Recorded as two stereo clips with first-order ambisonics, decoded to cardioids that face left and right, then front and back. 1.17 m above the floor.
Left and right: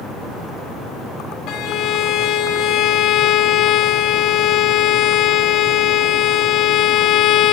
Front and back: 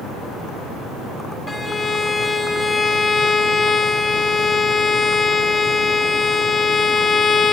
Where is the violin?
75° left, 0.6 m.